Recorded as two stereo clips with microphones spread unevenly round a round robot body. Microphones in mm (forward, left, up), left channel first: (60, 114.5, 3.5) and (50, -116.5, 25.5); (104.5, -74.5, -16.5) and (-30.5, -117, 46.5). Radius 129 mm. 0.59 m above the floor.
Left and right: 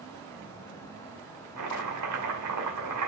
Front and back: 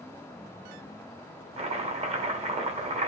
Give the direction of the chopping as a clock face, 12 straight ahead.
4 o'clock.